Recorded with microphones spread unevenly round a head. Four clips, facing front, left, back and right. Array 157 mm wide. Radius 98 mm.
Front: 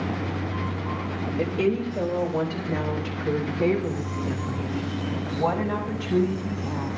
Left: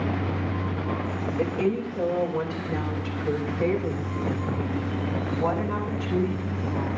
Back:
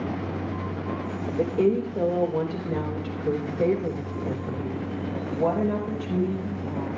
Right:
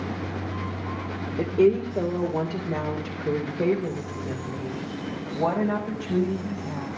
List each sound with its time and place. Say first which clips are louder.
1.4 s a woman speaking: right 6 dB, back 2 dB; 135° right, 3.5 m; by 6.9 s 130° right, 7.5 m